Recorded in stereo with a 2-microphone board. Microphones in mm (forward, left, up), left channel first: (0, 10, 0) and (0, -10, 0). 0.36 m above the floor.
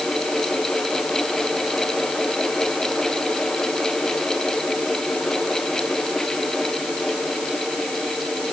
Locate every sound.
Only background noise.